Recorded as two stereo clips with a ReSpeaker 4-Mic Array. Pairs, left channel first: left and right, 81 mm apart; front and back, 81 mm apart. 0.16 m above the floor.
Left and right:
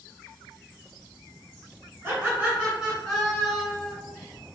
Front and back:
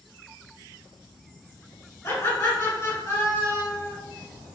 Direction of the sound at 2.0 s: 35° right.